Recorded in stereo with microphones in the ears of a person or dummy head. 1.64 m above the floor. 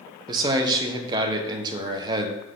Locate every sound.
0.3 s a man speaking: 20° right (ahead or behind), 1.0 m